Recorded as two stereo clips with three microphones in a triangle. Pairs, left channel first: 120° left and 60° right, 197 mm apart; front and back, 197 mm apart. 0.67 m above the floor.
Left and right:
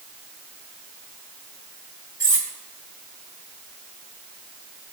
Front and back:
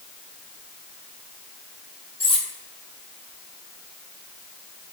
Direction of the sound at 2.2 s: 60° right.